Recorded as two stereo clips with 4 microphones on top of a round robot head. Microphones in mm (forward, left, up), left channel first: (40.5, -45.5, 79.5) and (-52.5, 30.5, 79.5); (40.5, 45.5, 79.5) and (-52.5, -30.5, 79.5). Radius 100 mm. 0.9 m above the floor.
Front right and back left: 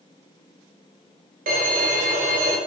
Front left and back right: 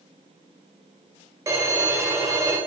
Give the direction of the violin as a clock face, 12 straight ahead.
7 o'clock.